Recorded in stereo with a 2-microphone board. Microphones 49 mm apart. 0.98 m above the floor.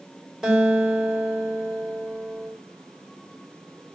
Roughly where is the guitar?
Centre.